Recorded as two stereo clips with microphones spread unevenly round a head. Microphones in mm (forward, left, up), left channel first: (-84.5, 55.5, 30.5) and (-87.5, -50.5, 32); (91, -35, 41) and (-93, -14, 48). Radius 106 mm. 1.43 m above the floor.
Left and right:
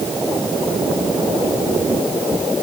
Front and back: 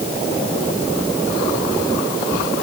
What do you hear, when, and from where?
Only background noise.